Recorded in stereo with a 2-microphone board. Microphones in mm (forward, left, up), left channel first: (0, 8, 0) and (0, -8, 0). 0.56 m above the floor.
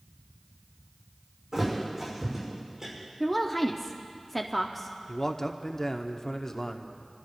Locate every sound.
1.5 s a thud: 40° right (ahead or behind), 5.5 m
3.2 s a woman speaking: centre (ahead or behind), 0.6 m
5.1 s a man speaking: 25° left (ahead or behind), 0.8 m